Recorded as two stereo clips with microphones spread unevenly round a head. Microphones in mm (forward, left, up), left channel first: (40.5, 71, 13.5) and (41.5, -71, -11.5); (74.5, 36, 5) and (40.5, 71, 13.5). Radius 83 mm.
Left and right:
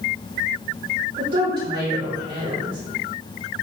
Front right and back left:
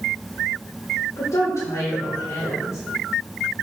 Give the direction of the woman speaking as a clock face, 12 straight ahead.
1 o'clock.